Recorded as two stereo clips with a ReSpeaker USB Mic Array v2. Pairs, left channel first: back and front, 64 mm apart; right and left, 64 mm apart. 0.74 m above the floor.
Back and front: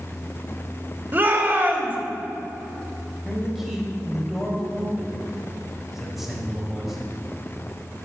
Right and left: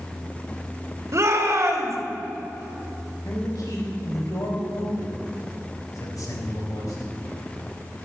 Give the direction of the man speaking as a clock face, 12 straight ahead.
3 o'clock.